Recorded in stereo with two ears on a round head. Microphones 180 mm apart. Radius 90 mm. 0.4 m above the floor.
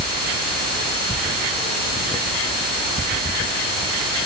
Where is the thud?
I don't hear a thud.